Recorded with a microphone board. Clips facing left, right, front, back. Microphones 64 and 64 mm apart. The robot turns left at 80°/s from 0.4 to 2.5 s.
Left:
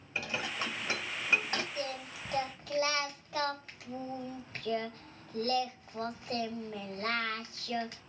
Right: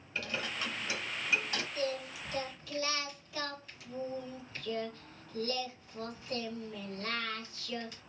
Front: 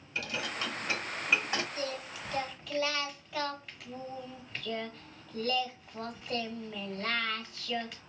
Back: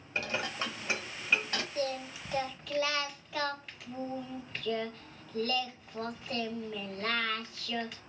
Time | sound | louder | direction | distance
0.1 | dishes clattering | left 1 dB, back 1 dB | 155° left | 0.9 m
1.8 | singing | right 3 dB, back 3 dB | 150° left | 1.1 m